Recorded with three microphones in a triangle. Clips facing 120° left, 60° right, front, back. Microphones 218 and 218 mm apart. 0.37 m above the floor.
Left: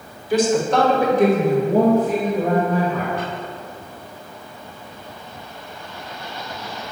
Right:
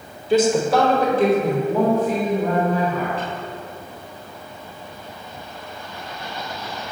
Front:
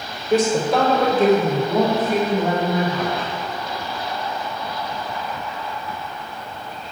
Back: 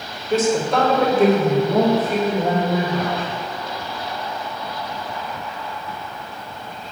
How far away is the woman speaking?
About 1.4 m.